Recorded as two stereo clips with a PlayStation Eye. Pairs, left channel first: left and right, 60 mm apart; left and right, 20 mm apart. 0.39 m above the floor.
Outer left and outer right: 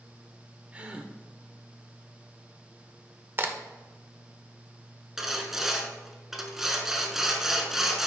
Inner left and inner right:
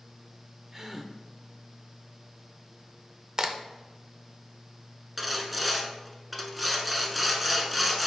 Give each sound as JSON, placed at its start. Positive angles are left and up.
{"t": 0.7, "sound": "a gasp", "side_deg": -20, "distance_m": 0.6}
{"t": 3.4, "sound": "a crack", "side_deg": -35, "distance_m": 0.6}
{"t": 5.2, "sound": "sawing", "side_deg": -5, "distance_m": 0.9}